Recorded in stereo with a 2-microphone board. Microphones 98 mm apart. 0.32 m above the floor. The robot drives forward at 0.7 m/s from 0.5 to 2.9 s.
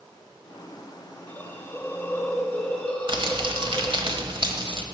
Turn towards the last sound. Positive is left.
turn(degrees=-55)  # may be behind; listen again after turning